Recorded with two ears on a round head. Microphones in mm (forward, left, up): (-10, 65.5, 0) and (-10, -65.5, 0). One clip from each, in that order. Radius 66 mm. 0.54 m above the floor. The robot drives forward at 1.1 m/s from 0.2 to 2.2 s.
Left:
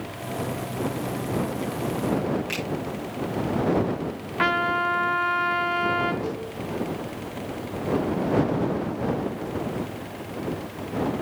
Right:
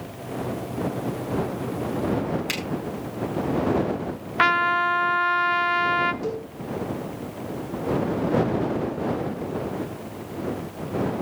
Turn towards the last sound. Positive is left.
turn(degrees=-55)  # may be behind; listen again after turning